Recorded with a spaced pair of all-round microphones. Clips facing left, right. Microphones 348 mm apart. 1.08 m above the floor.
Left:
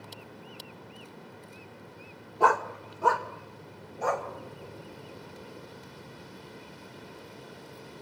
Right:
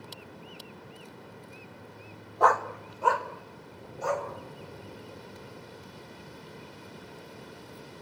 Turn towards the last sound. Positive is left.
turn(degrees=60)  # may be behind; listen again after turning